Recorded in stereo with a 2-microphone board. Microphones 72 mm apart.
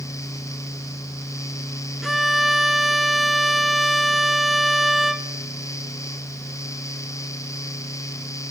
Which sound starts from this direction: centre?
A violin, at 2.0 s.